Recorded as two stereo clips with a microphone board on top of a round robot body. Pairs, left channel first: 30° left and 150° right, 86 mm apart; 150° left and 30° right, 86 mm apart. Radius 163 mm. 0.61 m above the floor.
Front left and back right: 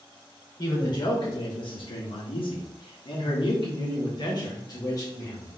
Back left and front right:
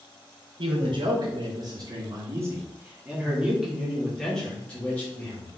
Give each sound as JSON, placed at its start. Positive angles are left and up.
{"t": 0.6, "sound": "a man speaking", "azimuth_deg": -10, "distance_m": 2.0}